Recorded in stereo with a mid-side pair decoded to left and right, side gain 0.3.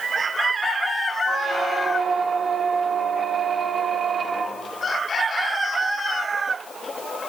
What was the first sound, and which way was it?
A squeak, 65° right.